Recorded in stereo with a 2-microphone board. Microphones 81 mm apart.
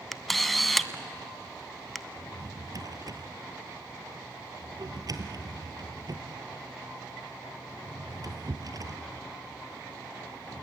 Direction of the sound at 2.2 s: 55° right (ahead or behind).